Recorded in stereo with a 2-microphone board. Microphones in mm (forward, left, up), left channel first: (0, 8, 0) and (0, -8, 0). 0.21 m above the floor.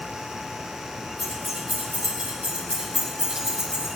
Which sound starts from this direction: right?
Keys jangling, at 1.2 s.